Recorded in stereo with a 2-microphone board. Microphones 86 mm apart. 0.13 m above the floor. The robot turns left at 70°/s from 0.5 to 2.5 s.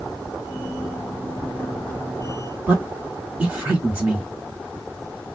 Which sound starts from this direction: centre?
A man speaking, at 2.7 s.